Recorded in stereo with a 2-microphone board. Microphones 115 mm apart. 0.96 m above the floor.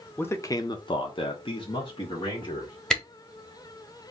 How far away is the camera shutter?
About 0.9 m.